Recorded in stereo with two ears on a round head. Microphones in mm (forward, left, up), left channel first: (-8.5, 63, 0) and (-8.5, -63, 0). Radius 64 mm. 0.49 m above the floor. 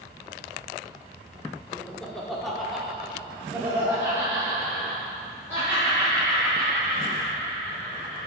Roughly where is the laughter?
Centre.